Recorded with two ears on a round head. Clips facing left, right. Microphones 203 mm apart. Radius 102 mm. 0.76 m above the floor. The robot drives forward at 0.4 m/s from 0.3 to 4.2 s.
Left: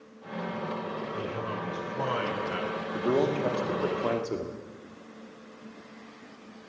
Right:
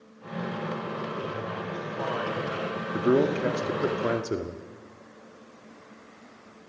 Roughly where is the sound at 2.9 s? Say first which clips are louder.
Right 4 dB; right.